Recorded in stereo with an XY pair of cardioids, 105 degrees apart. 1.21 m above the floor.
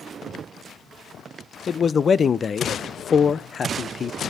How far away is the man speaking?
About 0.6 m.